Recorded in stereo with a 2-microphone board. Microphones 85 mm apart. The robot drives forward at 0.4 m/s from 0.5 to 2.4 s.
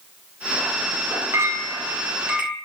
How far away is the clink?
About 0.5 m.